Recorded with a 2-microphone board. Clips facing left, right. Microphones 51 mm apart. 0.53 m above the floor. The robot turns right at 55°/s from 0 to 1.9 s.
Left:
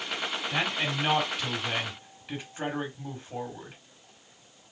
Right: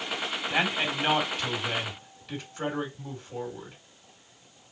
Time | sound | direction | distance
0.5 | a man speaking | 50° right | 1.7 m